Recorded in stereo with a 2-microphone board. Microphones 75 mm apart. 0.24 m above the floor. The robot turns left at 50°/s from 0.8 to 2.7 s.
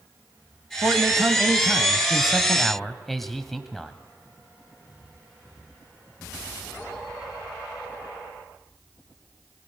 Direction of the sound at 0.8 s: 30° right (ahead or behind).